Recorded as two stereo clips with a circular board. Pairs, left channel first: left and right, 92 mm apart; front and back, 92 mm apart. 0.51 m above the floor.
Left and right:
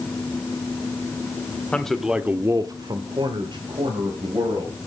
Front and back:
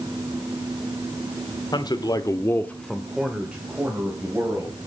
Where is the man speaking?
15° left, 1.3 m; by 4.8 s 115° right, 3.5 m.